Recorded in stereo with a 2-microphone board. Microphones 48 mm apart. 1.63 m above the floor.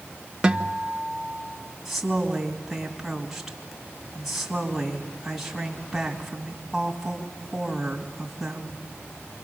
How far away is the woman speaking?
About 3 m.